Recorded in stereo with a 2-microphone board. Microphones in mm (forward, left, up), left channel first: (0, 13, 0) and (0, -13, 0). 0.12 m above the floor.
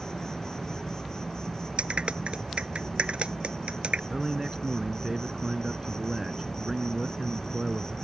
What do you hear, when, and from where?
0.0 s an insect: 25° left (ahead or behind)
1.8 s a clap: 50° right (ahead or behind)
4.1 s a man speaking: 20° right (ahead or behind)